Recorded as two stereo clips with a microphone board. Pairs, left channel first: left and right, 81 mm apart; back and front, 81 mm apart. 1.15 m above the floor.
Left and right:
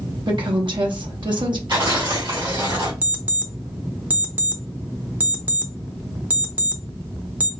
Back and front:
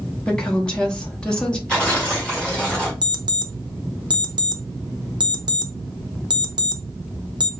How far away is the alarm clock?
About 0.6 m.